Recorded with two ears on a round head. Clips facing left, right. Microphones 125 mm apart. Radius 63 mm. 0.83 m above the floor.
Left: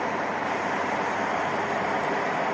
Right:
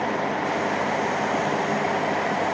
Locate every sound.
Only background noise.